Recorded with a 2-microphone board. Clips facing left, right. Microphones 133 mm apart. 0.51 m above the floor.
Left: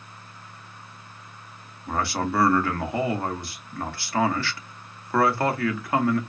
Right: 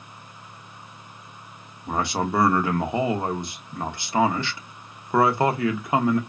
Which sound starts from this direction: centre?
A man speaking, at 1.9 s.